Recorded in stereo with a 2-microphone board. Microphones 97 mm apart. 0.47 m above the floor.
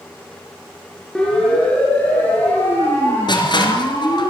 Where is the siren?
5° left (ahead or behind), 6 m; by 4.3 s 35° left (ahead or behind), 9 m.